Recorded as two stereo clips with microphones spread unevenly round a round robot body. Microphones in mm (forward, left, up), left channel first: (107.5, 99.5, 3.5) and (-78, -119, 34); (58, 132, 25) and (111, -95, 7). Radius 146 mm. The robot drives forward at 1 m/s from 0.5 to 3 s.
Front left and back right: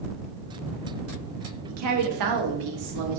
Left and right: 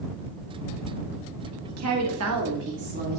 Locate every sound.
1.7 s a woman speaking: 90° right, 1.4 m; by 3.2 s 135° right, 2.0 m